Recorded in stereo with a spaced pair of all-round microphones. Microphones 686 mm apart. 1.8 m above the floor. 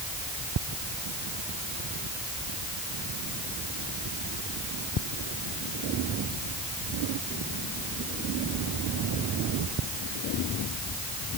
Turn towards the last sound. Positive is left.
No sound to turn to.